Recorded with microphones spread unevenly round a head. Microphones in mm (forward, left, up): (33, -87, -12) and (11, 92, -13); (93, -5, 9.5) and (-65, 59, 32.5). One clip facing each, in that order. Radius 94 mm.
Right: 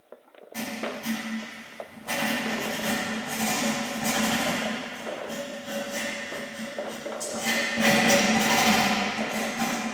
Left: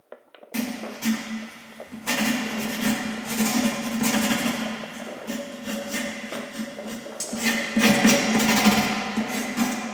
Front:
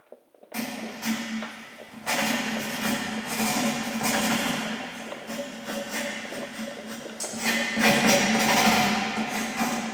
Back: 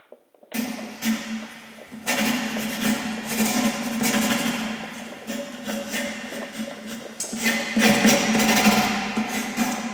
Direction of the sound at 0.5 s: 105° left.